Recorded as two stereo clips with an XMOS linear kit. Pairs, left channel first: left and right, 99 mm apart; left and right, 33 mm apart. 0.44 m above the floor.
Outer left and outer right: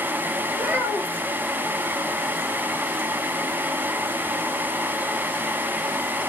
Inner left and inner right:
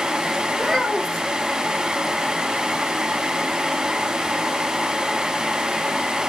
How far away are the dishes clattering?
No dishes clattering in this recording.